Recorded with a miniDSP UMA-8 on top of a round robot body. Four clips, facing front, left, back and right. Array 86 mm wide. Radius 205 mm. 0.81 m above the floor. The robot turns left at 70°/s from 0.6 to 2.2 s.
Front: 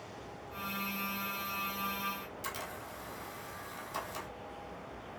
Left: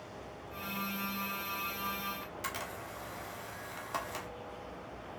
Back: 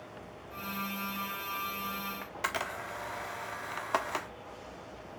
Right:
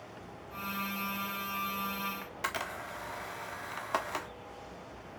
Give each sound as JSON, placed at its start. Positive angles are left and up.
{"t": 2.2, "sound": "a camera shutter", "azimuth_deg": -150, "distance_m": 0.8}